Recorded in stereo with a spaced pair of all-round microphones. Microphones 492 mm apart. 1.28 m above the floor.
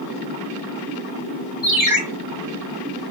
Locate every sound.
1.6 s a ringtone: 30° left (ahead or behind), 1.9 m